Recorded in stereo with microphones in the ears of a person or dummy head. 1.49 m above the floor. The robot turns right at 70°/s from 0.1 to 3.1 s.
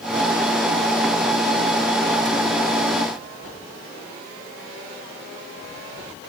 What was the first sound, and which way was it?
Only background noise.